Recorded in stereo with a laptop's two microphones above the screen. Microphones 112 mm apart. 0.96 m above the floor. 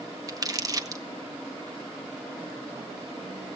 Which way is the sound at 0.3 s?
35° right (ahead or behind).